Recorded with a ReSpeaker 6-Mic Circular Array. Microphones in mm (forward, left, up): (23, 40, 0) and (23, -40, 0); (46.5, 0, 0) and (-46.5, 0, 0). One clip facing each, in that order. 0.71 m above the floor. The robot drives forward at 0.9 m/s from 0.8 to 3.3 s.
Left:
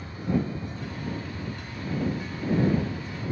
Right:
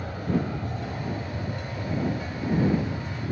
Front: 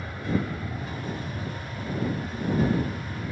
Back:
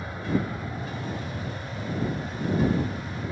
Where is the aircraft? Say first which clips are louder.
Right 1 dB, back 1 dB; 100° right; by 3.3 s 105° right.